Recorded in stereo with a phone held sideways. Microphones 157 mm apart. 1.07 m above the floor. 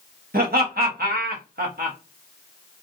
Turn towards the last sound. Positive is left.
turn(degrees=-75)  # may be behind; listen again after turning